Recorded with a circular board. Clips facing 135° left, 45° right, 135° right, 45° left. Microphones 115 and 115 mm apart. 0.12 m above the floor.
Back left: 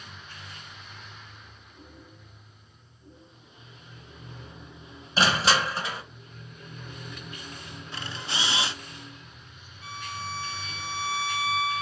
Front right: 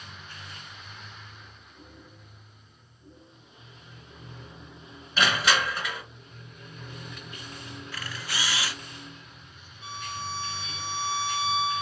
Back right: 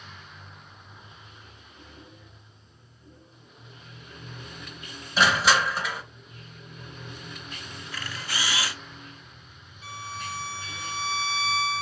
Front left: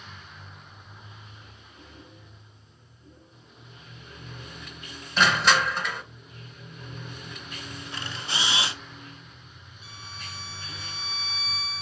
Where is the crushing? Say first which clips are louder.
Back left 2 dB, even; 145° left, 1.3 m.